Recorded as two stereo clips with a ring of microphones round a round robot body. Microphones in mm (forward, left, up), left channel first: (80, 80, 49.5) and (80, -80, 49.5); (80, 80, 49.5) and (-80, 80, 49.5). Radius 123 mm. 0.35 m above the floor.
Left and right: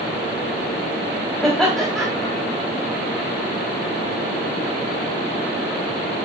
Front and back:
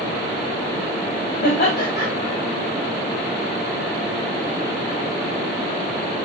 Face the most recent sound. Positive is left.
turn(degrees=5)